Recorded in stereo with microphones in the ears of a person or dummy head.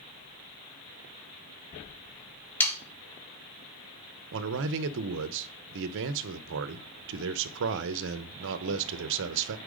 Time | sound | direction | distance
2.6 | sawing | 10° left (ahead or behind) | 1.9 m
4.3 | a man speaking | 60° right (ahead or behind) | 0.8 m